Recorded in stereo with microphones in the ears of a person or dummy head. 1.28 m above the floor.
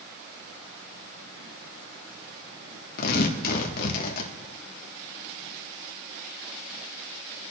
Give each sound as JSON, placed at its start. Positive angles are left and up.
{"t": 3.0, "sound": "tearing paper", "side_deg": 55, "distance_m": 1.1}